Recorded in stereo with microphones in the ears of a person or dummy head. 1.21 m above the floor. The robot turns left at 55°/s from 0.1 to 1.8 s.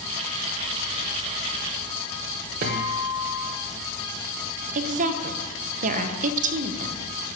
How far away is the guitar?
About 1.1 m.